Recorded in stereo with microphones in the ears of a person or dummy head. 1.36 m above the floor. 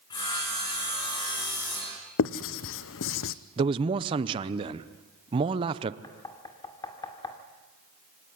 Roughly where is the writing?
Left.